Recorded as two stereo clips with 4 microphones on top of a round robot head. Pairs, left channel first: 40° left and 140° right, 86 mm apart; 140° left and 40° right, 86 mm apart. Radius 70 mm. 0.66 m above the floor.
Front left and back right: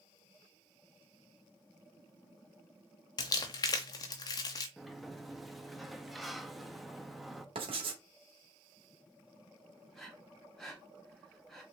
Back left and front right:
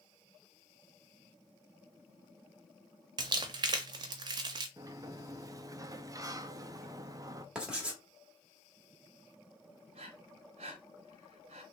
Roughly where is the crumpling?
Ahead.